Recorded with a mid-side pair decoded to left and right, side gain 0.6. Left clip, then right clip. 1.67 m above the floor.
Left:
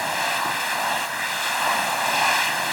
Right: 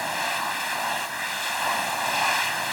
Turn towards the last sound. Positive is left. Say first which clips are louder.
# left 3 dB
turn(degrees=15)